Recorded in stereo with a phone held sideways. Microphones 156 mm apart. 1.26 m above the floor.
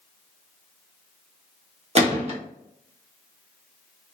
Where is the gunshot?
45° right (ahead or behind), 0.7 m.